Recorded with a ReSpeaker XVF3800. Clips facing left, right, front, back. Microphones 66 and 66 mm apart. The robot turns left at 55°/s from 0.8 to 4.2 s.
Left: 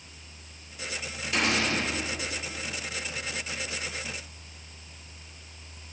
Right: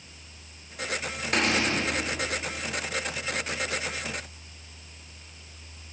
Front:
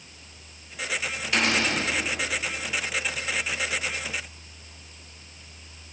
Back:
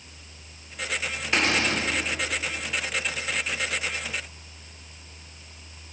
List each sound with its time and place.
1.3 s a cupboard door: 120° right, 2.5 m; by 1.8 s 150° right, 2.5 m